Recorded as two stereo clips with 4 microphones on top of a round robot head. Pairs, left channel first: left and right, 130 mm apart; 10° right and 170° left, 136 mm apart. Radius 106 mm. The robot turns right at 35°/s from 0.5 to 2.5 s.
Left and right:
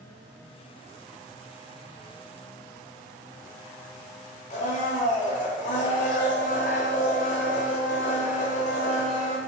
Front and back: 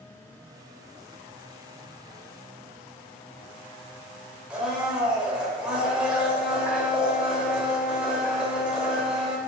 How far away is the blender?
About 0.9 m.